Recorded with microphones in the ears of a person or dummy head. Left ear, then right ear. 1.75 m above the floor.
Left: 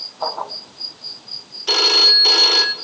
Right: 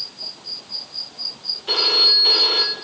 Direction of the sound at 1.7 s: 30° left (ahead or behind).